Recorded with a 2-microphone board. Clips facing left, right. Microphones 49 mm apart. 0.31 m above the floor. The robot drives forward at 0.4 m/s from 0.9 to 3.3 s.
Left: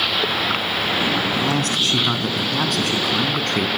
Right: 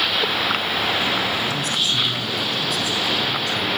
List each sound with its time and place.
1.3 s a man speaking: 65° left (ahead or behind), 3 m; by 3.7 s 60° left (ahead or behind), 3.5 m